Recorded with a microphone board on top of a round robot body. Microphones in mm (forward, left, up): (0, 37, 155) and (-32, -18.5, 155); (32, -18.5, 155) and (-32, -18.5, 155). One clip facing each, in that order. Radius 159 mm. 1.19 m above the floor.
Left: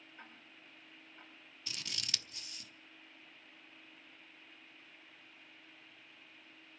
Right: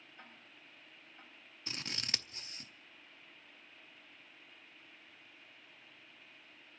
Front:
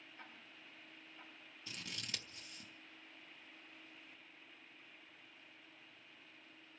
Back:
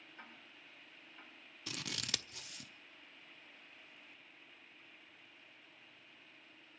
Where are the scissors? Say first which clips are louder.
Right 2 dB, back 5 dB; 175° right, 0.6 m.